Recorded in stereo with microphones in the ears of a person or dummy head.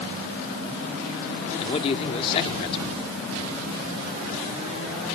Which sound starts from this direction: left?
A man speaking, at 1.6 s.